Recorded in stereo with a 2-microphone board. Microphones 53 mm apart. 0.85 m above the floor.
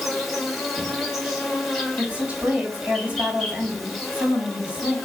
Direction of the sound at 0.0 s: 5° left (ahead or behind).